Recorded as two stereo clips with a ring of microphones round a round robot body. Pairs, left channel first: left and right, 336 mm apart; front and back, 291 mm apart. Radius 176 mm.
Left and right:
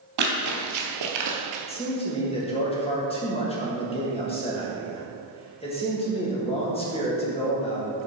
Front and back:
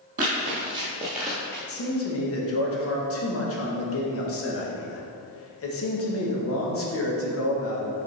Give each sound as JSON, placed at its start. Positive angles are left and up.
{"t": 0.2, "sound": "running footsteps", "azimuth_deg": -115, "distance_m": 1.5}
{"t": 1.7, "sound": "a man speaking", "azimuth_deg": 20, "distance_m": 1.4}